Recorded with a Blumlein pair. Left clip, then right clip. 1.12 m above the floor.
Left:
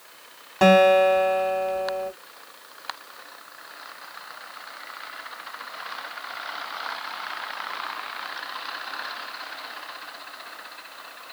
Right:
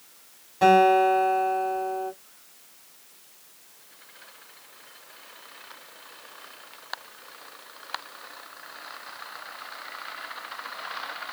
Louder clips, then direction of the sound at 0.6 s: Left 2 dB; 40° left.